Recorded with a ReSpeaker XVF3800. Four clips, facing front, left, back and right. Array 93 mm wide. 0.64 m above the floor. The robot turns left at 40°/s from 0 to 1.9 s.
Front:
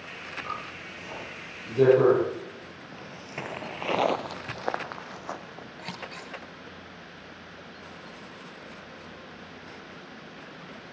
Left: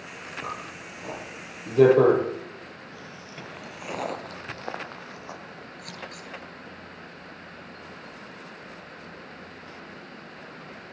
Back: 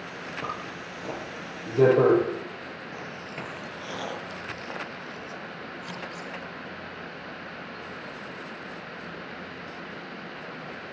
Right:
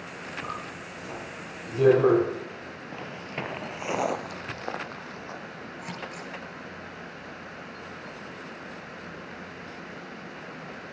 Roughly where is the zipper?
Behind.